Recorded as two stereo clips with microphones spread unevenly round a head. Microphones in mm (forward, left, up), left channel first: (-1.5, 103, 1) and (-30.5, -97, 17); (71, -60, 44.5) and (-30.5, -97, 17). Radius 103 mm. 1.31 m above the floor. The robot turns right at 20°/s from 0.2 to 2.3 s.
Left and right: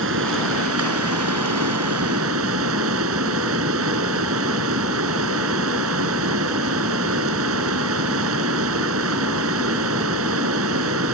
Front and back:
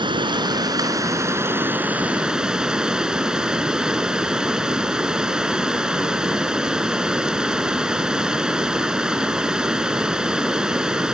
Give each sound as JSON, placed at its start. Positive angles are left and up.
{"t": 0.0, "sound": "running water", "azimuth_deg": -120}